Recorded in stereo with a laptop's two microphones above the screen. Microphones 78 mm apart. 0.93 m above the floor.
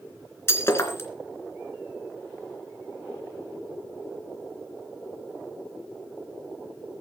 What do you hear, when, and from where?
0.5 s breaking glass: 30° left (ahead or behind), 3 m